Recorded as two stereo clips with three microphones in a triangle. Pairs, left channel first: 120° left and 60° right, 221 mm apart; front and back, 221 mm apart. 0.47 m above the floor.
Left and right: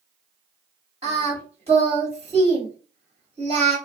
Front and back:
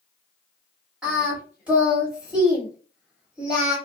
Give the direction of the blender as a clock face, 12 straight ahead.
I don't hear a blender.